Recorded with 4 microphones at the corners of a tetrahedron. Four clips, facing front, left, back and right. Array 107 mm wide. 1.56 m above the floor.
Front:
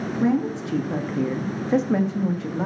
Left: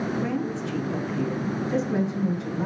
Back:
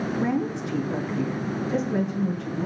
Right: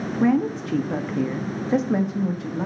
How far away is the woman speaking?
About 2.5 m.